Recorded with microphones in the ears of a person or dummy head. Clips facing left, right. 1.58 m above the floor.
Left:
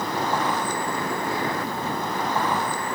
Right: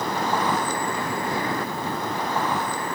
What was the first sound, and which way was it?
Only background noise.